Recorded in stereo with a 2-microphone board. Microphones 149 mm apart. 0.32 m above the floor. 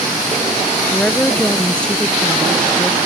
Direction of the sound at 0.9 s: 5° left (ahead or behind).